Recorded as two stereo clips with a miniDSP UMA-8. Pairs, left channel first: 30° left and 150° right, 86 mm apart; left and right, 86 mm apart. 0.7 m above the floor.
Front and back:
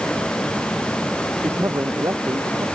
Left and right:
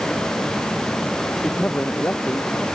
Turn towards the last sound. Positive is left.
turn(degrees=160)